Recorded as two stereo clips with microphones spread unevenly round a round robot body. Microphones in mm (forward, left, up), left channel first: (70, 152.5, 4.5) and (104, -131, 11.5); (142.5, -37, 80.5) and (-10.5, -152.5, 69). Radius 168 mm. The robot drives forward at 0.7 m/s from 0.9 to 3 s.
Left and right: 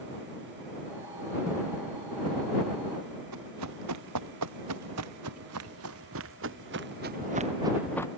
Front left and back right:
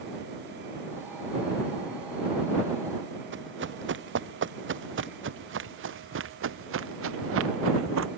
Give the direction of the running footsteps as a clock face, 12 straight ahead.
4 o'clock.